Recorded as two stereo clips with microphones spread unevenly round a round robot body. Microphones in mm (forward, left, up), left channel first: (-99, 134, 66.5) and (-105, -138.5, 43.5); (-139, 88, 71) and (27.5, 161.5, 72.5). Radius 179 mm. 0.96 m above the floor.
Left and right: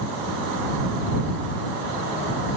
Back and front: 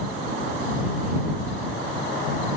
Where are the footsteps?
I don't hear footsteps.